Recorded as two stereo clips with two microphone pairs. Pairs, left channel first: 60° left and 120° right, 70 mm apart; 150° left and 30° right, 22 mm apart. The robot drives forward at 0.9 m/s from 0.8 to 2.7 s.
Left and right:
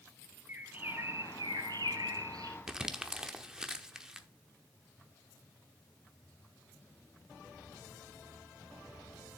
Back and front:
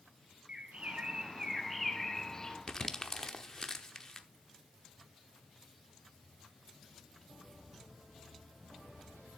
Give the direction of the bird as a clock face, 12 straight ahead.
2 o'clock.